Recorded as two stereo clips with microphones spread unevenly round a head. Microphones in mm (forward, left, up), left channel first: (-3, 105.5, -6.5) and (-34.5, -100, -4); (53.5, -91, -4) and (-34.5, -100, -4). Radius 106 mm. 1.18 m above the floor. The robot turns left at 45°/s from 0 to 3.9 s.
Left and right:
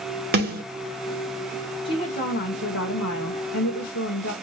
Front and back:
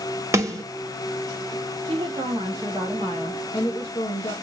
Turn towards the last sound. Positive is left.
turn(degrees=55)